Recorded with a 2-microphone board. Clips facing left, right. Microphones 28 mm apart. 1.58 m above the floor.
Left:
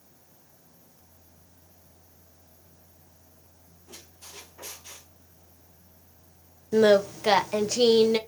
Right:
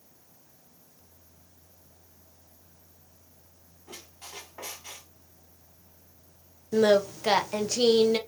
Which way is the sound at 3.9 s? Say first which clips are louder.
Right 3 dB; 65° right (ahead or behind).